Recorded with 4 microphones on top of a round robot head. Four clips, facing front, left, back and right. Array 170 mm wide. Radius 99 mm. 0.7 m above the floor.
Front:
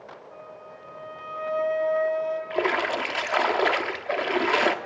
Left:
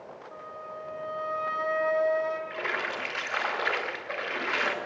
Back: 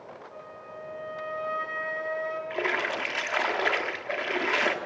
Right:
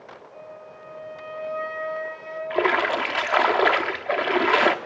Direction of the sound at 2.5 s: 75° right.